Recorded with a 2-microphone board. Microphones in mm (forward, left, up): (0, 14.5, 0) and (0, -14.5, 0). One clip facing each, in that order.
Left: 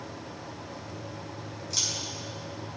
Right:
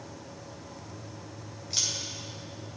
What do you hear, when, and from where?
1.7 s a camera shutter: 25° right (ahead or behind), 3.5 m